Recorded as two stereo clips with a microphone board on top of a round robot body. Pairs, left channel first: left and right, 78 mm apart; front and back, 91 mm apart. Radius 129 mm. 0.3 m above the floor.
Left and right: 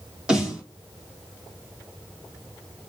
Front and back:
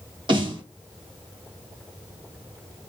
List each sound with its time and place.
0.3 s a snare drum: 165° right, 2.5 m